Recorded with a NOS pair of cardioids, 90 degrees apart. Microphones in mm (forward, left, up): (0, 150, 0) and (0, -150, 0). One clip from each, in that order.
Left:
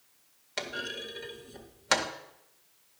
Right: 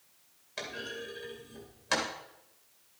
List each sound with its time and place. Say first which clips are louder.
0.6 s a clunk: left 4 dB; 50° left, 2.0 m